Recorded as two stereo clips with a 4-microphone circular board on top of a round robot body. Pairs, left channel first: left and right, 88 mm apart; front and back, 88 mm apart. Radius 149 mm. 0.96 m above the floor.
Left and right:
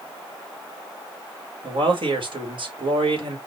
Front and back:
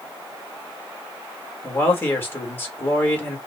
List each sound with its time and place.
1.6 s a man speaking: 65° right, 2 m